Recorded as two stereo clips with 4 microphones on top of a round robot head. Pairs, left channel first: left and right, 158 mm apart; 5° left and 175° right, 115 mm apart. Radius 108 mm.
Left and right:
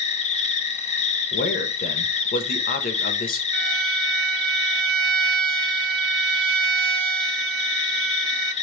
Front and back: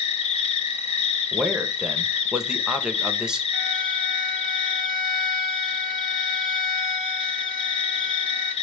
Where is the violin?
85° right, 0.9 m.